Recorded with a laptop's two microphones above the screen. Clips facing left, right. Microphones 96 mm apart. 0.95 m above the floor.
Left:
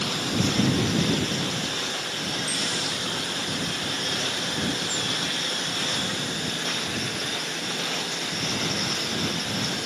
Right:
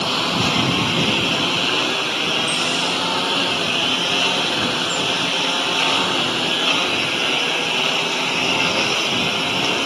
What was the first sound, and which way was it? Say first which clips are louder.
A lawn mower: right 5 dB; 85° right.